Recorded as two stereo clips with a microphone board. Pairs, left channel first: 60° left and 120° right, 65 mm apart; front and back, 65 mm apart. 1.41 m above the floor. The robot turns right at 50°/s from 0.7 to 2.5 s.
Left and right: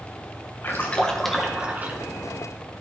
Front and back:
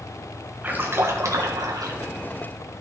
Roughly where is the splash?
Behind left.